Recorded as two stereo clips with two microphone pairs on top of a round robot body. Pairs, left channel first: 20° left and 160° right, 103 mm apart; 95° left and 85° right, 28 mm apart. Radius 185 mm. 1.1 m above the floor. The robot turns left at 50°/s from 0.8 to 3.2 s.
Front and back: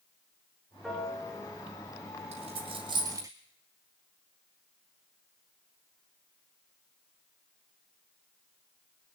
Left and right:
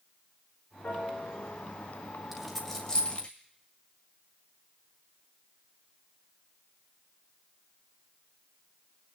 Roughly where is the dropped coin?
Behind.